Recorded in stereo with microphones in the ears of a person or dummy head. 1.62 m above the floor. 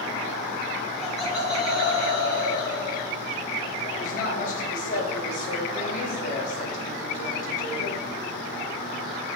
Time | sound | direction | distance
1.0 | laughter | 5° left (ahead or behind) | 2.5 m
4.0 | a woman speaking | 45° left (ahead or behind) | 2 m